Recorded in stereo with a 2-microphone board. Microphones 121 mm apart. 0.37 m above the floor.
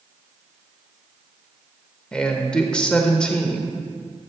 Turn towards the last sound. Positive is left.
turn(degrees=10)  # may be behind; listen again after turning